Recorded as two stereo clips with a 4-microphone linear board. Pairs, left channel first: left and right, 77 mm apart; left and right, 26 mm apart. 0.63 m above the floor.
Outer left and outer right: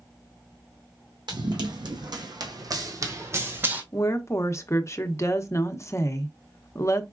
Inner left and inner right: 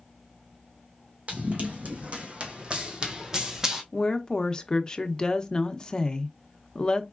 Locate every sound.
1.3 s running footsteps: 70° right (ahead or behind), 1.8 m; by 3.8 s 25° right (ahead or behind), 1.3 m
3.9 s a woman speaking: 35° left (ahead or behind), 0.7 m